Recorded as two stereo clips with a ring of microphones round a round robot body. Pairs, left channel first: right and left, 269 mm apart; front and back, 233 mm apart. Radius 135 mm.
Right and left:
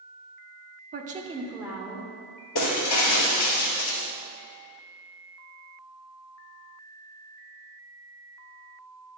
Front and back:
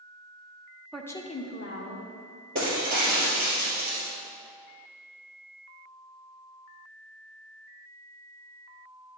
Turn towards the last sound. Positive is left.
turn(degrees=-120)